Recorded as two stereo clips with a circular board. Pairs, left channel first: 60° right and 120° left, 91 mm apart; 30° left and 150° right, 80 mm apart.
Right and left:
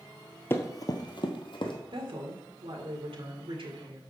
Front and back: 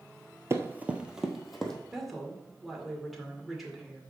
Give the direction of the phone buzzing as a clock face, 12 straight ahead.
No phone buzzing in this recording.